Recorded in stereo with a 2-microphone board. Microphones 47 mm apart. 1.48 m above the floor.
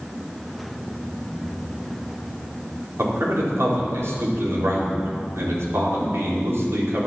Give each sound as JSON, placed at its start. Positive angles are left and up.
{"t": 3.0, "sound": "a man speaking", "side_deg": -70, "distance_m": 4.5}